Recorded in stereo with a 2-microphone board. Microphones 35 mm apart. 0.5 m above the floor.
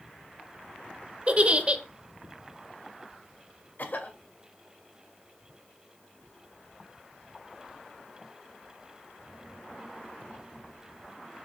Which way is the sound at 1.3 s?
35° right (ahead or behind).